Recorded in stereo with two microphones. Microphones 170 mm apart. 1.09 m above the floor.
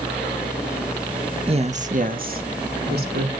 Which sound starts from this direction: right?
A woman speaking, at 1.5 s.